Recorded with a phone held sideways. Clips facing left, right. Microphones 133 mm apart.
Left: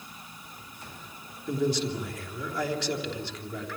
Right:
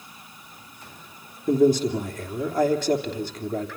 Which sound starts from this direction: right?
A man speaking, at 1.5 s.